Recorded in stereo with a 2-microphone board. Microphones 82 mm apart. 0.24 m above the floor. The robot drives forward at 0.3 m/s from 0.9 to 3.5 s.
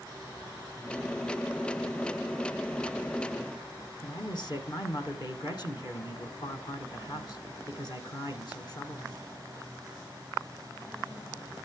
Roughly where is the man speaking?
Left.